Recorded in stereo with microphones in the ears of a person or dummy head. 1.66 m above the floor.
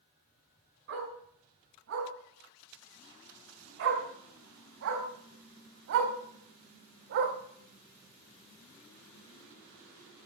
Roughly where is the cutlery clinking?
No cutlery clinking in this recording.